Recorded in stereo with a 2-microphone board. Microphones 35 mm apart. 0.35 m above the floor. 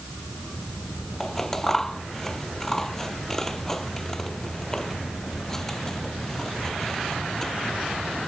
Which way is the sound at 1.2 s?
10° left (ahead or behind).